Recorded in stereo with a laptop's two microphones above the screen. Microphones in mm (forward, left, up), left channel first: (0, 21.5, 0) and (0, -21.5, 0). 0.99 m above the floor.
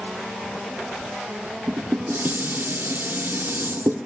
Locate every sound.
1.7 s dishes clattering: 65° right (ahead or behind), 1.3 m